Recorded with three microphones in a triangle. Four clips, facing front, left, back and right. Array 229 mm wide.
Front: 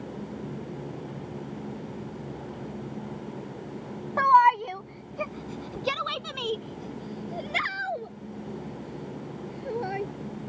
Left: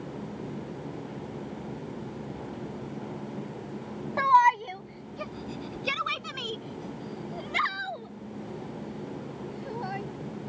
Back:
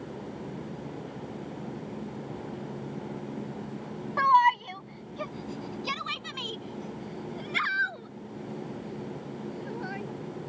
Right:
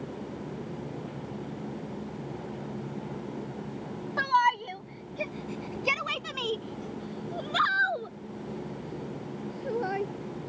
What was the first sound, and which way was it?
A shout, 15° left.